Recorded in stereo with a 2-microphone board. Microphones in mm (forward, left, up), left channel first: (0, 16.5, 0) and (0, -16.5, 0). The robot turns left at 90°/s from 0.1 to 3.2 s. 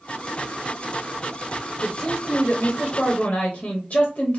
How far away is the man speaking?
About 0.7 m.